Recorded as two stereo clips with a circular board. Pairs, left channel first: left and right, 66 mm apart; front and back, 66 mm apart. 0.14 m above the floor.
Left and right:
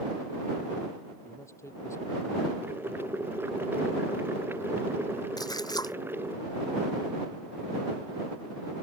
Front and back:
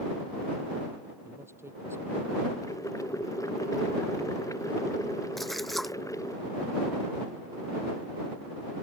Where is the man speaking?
130° left.